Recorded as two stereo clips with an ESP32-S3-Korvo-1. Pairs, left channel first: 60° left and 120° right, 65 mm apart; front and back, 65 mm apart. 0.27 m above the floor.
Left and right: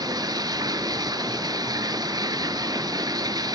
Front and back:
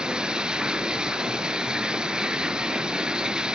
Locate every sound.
0.0 s running water: 100° right, 0.7 m